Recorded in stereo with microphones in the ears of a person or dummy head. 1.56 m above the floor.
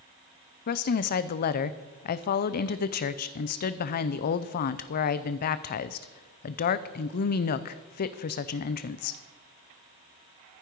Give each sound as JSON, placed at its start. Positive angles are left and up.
{"t": 0.7, "sound": "a woman speaking", "side_deg": 45, "distance_m": 0.6}